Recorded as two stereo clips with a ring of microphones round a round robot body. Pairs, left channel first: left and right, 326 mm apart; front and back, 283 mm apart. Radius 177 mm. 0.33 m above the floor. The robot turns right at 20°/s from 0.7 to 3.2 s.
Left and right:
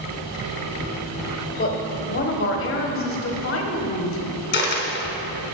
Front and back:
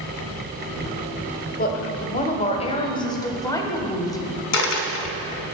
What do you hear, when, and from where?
1.6 s a woman speaking: 40° left, 1.1 m; by 4.4 s 70° left, 1.1 m
4.5 s a dropped coin: 30° left, 1.0 m